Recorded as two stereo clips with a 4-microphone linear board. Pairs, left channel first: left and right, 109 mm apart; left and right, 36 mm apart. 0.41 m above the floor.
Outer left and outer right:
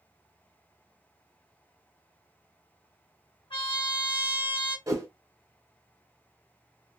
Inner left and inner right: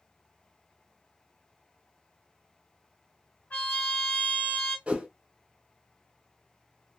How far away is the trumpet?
About 2 m.